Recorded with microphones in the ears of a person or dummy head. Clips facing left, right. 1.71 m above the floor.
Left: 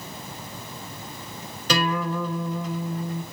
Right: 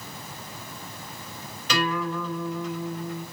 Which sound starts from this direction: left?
A guitar, at 1.7 s.